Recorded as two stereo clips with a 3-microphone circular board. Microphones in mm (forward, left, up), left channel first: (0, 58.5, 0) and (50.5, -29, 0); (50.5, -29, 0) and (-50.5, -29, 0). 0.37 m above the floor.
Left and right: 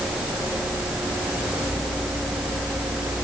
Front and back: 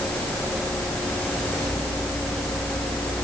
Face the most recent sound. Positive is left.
No sound to turn to.